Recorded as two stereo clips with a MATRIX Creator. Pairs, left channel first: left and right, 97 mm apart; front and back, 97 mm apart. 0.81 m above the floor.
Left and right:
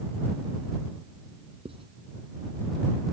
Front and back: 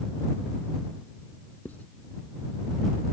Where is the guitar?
No guitar in this recording.